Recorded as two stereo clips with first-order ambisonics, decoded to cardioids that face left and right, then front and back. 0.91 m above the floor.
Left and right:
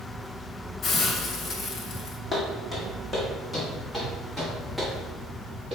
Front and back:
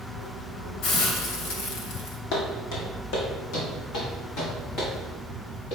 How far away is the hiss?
About 1.1 m.